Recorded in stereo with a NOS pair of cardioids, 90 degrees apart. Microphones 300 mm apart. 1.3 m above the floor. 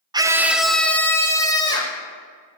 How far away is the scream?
About 0.7 m.